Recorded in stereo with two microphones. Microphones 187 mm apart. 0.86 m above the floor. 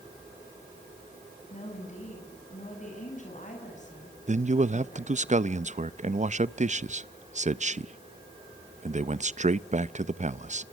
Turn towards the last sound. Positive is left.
turn(degrees=-40)  # may be behind; listen again after turning